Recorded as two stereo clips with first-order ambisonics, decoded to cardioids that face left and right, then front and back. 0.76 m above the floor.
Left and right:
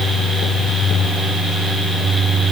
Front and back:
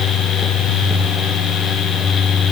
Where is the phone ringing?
No phone ringing in this recording.